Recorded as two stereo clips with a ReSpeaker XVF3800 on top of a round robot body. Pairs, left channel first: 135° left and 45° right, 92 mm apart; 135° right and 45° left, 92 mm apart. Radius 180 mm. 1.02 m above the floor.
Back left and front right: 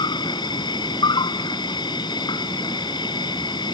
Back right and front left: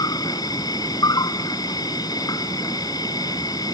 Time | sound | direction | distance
0.0 | an insect | 175° left | ?